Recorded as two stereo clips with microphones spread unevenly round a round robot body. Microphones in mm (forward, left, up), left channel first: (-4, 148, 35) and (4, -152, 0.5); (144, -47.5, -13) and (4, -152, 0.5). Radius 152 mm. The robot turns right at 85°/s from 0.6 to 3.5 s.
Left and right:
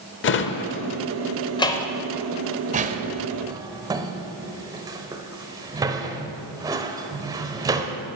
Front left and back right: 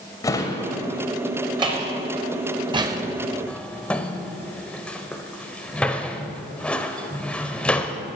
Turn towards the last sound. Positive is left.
turn(degrees=-35)